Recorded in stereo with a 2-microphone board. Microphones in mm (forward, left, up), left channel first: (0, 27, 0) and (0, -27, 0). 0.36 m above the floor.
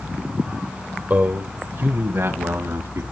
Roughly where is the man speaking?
Right.